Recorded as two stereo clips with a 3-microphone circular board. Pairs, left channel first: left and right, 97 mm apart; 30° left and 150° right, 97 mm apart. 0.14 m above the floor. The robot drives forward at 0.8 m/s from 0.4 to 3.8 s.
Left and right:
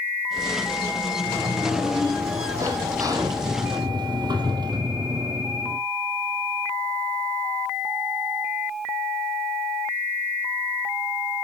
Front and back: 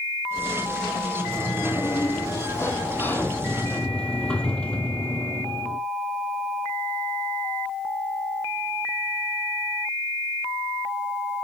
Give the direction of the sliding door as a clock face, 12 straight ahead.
1 o'clock.